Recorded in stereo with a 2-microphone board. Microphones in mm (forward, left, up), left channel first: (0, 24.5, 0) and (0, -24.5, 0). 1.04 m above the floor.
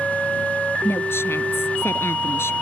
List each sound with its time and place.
0.8 s a woman speaking: 60° left (ahead or behind)